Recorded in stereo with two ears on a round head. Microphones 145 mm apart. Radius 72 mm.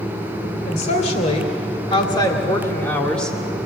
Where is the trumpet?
I don't hear a trumpet.